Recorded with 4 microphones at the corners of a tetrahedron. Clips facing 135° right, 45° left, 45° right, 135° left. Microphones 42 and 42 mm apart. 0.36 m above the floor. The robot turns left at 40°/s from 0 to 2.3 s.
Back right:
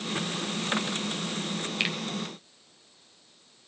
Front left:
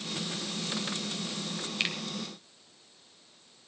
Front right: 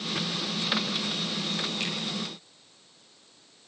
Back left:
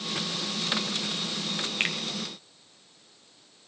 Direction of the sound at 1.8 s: 150° left.